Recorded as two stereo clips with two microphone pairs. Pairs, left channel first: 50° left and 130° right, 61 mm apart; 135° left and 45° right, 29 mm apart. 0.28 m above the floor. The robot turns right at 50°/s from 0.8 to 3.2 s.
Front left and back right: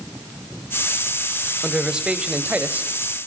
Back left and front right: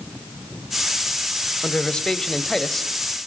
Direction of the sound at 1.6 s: 155° left.